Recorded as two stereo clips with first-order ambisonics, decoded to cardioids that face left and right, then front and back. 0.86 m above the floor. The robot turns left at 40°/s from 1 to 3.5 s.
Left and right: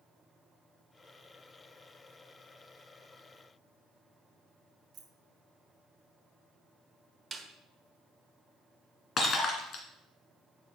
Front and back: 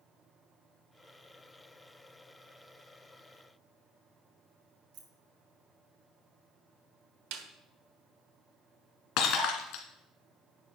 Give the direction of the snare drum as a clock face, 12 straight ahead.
6 o'clock.